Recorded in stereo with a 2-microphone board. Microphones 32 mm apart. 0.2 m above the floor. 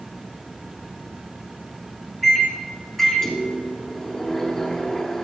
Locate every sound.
2.2 s a microwave: 10° left (ahead or behind), 1.7 m